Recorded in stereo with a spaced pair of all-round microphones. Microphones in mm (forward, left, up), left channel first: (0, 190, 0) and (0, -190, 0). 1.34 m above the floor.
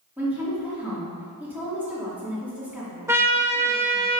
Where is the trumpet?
5° right (ahead or behind), 1.5 m.